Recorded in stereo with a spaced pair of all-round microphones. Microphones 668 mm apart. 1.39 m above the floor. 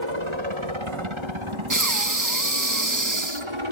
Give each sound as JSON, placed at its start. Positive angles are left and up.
{"t": 0.0, "sound": "a helicopter", "side_deg": -45}
{"t": 1.7, "sound": "breathing", "side_deg": -25}